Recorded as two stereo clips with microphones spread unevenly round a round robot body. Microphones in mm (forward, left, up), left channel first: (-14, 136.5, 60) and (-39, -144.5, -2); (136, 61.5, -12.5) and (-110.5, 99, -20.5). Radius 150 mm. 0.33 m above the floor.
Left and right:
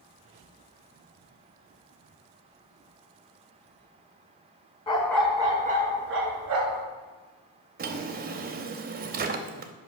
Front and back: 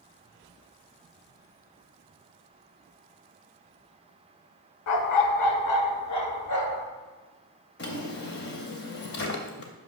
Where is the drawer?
55° right, 0.7 m.